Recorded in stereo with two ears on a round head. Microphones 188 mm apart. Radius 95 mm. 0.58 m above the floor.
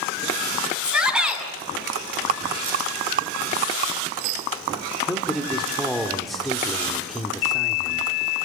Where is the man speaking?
Centre (ahead or behind), 1.9 m.